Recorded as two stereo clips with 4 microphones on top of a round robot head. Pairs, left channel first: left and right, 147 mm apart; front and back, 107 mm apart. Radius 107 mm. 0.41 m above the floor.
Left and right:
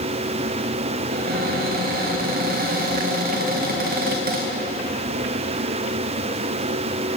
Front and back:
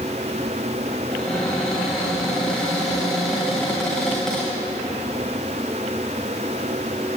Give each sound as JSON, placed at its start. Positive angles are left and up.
{"t": 1.1, "sound": "a cupboard door", "azimuth_deg": -90, "distance_m": 2.0}